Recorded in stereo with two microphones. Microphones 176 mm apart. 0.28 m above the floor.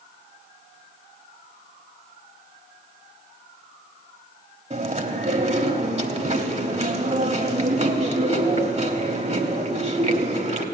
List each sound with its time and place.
4.7 s chewing: 35° right (ahead or behind), 1.0 m